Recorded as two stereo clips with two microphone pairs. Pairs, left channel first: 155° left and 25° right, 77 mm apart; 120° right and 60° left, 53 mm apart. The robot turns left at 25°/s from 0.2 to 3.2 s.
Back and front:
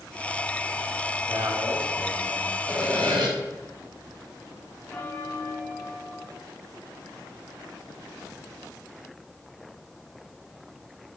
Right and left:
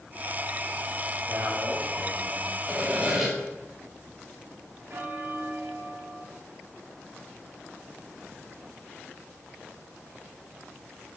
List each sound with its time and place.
1.3 s a man speaking: 25° left, 3.5 m; by 2.6 s 10° right, 3.5 m
2.7 s sawing: straight ahead, 4 m; by 3.3 s 15° right, 4 m
4.9 s a bell: 90° left, 1.4 m